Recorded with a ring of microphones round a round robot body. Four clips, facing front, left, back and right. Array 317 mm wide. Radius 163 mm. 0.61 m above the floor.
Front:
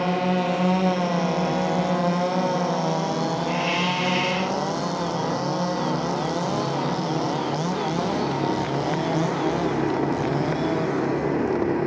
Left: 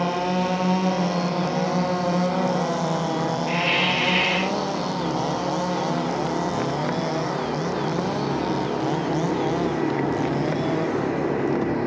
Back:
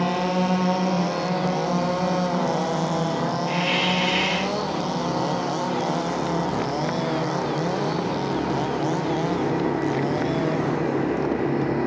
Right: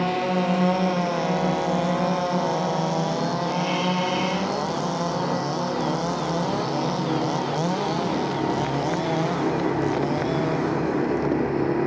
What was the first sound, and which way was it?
A hiss, 95° left.